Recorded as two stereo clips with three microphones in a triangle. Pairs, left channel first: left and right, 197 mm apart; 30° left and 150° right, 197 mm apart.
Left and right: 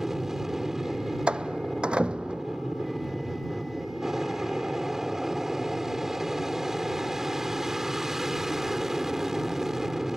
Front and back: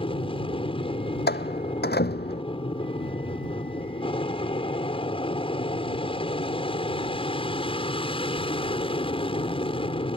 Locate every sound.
0.0 s an aircraft: 5° right
1.3 s a door slam: 5° right